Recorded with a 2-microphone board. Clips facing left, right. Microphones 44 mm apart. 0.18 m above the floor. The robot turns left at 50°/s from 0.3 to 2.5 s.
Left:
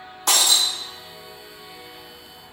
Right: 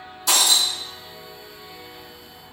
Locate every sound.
0.3 s breaking glass: 55° left (ahead or behind), 3 m; by 0.7 s 35° left (ahead or behind), 3 m